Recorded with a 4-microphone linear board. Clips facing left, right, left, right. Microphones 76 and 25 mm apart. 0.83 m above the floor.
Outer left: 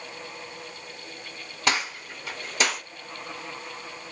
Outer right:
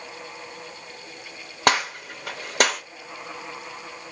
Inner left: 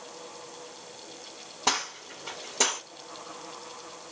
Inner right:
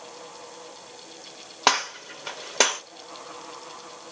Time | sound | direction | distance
1.7 | a gunshot | 55° right (ahead or behind) | 0.8 m